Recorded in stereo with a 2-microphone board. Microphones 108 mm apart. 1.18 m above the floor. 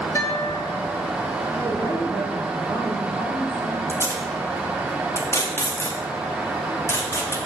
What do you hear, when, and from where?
0.1 s a guitar: 30° left (ahead or behind), 1.2 m
1.5 s a woman speaking: 10° right (ahead or behind), 3 m
3.9 s tape being pulled: 25° left (ahead or behind), 2.0 m